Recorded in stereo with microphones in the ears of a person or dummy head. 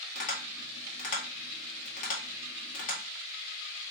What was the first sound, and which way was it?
Tapping, 45° left (ahead or behind).